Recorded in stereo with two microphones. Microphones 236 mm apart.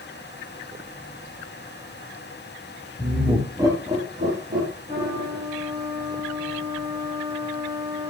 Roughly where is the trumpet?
Right.